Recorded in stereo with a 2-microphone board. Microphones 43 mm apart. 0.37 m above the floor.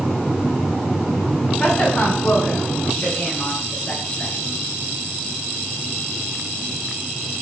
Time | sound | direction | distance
1.6 | a woman speaking | 25° left (ahead or behind) | 3.5 m